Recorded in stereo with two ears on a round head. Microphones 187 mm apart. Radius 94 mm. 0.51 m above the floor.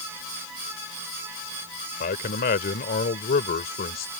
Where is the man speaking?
45° left (ahead or behind).